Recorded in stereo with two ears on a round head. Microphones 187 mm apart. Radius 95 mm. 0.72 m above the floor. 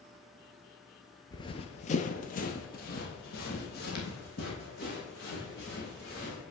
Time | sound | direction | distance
1.3 | running footsteps | 20° left (ahead or behind) | 0.7 m